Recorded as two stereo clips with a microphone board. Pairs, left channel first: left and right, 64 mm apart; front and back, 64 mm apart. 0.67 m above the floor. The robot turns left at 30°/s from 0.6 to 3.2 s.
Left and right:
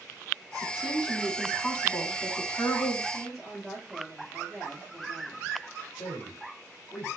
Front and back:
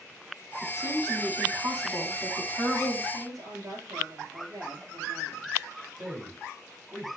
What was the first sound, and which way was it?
A woman speaking, 165° right.